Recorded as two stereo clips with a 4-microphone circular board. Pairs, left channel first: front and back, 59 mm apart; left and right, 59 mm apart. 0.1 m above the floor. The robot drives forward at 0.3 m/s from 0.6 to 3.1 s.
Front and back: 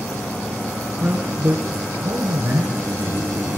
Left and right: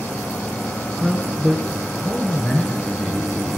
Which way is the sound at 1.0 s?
170° left.